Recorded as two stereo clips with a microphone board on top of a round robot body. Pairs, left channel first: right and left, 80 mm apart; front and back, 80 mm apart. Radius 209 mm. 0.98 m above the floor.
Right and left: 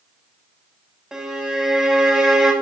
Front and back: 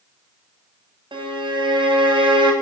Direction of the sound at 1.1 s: 170° left.